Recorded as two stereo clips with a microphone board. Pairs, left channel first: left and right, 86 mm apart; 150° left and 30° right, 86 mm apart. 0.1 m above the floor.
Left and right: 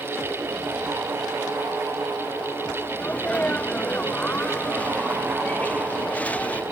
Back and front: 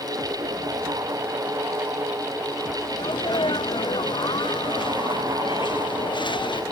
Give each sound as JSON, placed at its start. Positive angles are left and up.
{"t": 3.0, "sound": "a sneeze", "azimuth_deg": 160}